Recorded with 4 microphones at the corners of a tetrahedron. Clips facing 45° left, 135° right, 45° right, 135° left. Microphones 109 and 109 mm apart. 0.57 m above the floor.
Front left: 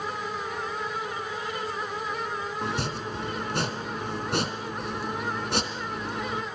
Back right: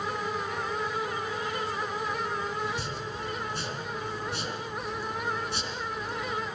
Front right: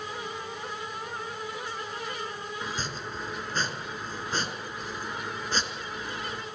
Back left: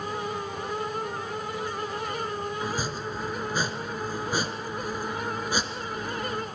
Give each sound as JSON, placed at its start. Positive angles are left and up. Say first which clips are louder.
{"t": 2.6, "sound": "chopping", "louder": "front left 3 dB, back left 5 dB", "azimuth_deg": 55, "distance_m": 3.0}